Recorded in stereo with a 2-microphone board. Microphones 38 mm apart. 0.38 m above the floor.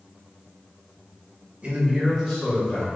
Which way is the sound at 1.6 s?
35° right (ahead or behind).